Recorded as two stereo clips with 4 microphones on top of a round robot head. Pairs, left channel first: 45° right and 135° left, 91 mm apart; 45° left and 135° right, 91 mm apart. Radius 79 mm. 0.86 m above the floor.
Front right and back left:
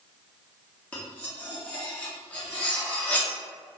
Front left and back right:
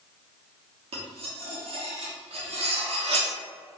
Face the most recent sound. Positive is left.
turn(degrees=-120)